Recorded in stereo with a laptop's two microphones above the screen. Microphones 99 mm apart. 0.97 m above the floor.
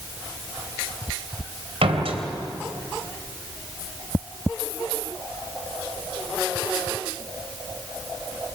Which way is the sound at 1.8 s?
80° right.